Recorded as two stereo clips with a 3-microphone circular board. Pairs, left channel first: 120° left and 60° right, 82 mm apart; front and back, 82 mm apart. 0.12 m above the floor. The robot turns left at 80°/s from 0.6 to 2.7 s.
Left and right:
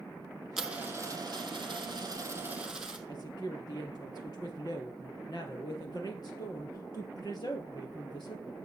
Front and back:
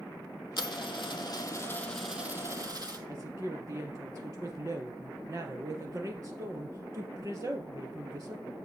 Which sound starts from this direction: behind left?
A woman speaking, at 3.1 s.